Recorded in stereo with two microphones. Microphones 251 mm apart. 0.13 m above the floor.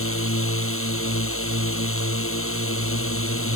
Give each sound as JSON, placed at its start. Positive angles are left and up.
{"t": 0.0, "sound": "a drone", "side_deg": 60}